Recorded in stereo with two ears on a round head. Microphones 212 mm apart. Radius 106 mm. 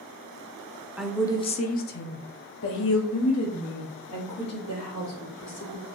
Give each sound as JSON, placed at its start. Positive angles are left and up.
{"t": 1.0, "sound": "a woman speaking", "side_deg": -5, "distance_m": 0.5}